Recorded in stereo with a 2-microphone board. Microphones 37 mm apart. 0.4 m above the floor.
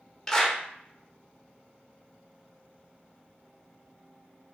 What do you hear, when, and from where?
0.3 s a clap: 10° left (ahead or behind), 0.8 m